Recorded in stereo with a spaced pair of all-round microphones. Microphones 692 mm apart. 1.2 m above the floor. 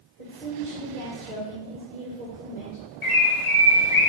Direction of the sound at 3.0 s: 65° left (ahead or behind).